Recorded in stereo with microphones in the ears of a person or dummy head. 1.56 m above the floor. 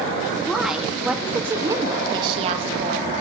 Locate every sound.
0.4 s a woman speaking: 5° left (ahead or behind), 2.5 m; by 3.1 s 50° right (ahead or behind), 1.8 m